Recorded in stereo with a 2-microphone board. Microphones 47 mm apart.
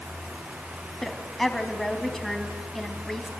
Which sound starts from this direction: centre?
A woman speaking, at 1.0 s.